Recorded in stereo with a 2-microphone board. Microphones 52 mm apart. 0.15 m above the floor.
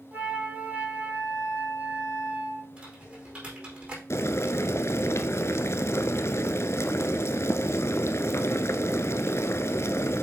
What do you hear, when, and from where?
0.1 s a flute: 30° right (ahead or behind), 2.5 m
2.8 s typing on a keyboard: 20° right (ahead or behind), 4.5 m
4.1 s boiling: 60° left (ahead or behind), 0.7 m